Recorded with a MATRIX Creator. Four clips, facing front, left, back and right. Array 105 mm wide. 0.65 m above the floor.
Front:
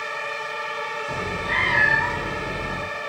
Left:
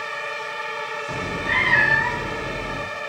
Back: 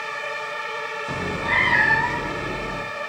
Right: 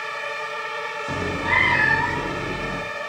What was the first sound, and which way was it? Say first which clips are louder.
A cat meowing: right 3 dB, back 4 dB; 115° right.